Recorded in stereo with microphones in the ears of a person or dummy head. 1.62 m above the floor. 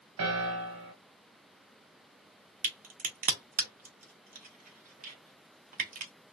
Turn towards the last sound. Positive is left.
turn(degrees=-35)  # may be behind; listen again after turning